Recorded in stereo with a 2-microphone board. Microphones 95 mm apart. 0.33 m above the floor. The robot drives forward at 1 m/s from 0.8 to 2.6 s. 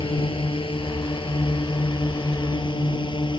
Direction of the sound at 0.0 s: 65° left (ahead or behind).